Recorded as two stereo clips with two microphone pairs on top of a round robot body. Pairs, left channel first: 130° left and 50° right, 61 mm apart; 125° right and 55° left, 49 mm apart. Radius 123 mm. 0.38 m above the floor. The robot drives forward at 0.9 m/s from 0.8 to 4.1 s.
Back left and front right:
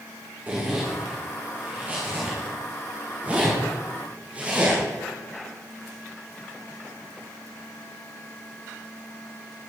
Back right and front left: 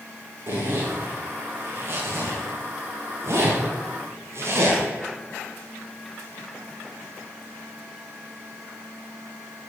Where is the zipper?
15° left, 9.5 m; by 4.8 s 25° left, 7 m.